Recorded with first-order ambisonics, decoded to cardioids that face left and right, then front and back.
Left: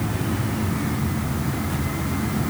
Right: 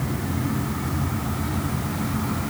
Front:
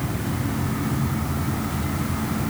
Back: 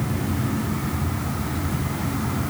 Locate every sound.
Only background noise.